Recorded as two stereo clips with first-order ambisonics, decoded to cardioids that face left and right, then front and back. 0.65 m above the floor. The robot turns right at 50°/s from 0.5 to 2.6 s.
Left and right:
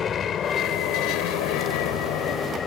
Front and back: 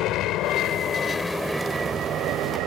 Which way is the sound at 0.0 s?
30° left.